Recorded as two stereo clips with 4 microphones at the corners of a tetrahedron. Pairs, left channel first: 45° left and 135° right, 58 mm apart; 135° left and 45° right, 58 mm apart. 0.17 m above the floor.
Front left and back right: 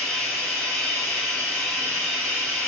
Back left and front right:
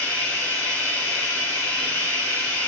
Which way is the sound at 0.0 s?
105° left.